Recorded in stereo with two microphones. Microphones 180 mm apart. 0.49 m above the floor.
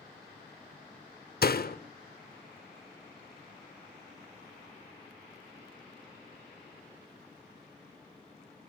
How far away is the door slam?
About 1.0 m.